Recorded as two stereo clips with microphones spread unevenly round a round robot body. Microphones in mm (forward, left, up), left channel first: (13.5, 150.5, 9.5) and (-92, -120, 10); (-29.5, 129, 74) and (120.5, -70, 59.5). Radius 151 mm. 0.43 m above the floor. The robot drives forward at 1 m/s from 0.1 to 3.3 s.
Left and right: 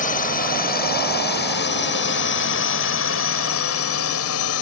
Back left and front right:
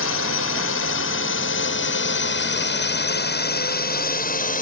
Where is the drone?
125° left; by 4.6 s 75° left.